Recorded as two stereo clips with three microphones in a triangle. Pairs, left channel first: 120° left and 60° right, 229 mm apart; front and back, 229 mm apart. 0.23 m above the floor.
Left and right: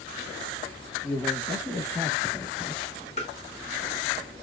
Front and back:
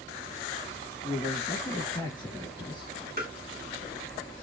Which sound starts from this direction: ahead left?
A man speaking, at 1.0 s.